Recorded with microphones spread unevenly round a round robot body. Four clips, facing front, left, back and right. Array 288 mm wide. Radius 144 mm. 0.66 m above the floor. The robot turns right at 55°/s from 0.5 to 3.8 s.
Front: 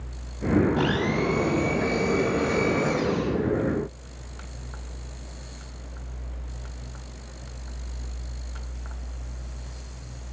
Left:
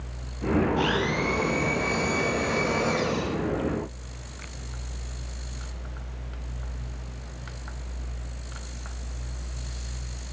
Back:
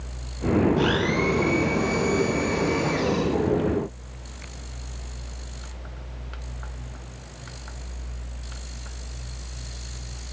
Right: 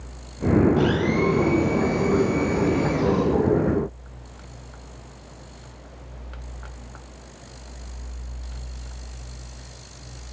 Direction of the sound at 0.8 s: 65° right.